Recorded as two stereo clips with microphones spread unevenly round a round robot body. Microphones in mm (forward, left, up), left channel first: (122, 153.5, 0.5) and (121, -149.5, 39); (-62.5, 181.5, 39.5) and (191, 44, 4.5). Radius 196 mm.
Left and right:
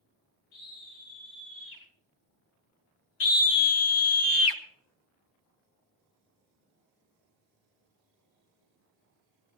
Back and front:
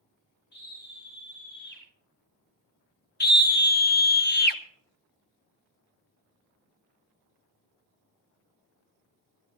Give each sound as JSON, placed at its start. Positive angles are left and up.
{"t": 0.5, "sound": "a scream", "azimuth_deg": 100, "distance_m": 5.5}
{"t": 3.2, "sound": "a scream", "azimuth_deg": 95, "distance_m": 1.6}